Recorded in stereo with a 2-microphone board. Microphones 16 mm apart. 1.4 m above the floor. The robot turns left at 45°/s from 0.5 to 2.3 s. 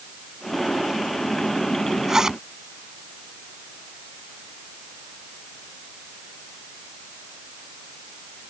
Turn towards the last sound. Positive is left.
turn(degrees=-40)  # may be behind; listen again after turning